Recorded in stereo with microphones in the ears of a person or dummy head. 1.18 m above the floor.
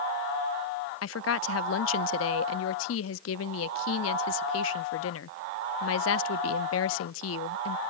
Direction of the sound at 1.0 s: 70° left (ahead or behind).